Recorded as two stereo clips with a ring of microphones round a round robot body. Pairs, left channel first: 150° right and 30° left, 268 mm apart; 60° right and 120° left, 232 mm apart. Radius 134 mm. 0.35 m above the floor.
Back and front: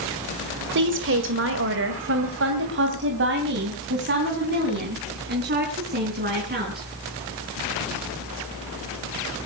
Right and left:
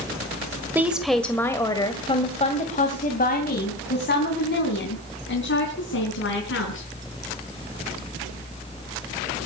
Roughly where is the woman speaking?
Ahead left.